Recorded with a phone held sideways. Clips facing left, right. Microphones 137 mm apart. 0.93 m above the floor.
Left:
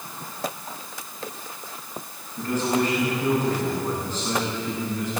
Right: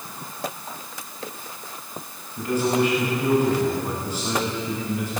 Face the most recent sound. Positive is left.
turn(degrees=-10)  # may be behind; listen again after turning